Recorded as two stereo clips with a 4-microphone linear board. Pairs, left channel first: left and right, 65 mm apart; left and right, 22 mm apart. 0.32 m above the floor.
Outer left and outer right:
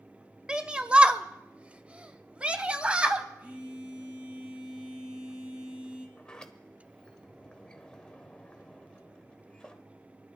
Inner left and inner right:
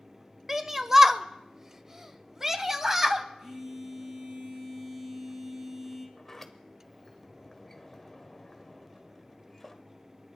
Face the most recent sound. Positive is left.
turn(degrees=15)  # may be behind; listen again after turning